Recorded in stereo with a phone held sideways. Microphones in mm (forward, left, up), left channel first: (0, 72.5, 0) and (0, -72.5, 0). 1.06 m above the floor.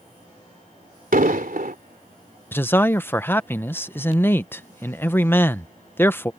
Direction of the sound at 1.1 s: 75° right (ahead or behind).